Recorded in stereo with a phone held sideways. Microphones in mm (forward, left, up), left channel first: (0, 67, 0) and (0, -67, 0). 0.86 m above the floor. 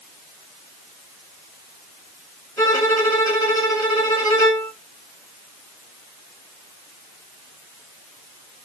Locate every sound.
2.6 s a violin: 25° left (ahead or behind), 3 m